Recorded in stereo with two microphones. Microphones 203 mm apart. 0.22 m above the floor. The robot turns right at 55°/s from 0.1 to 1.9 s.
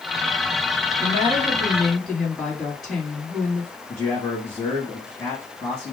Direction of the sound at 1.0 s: 130° left.